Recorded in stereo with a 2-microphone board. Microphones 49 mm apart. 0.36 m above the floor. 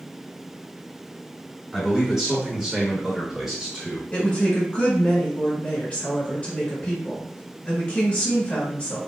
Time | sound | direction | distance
1.7 | a man speaking | 5° right (ahead or behind) | 1.2 m
4.1 | a woman speaking | 30° left (ahead or behind) | 1.5 m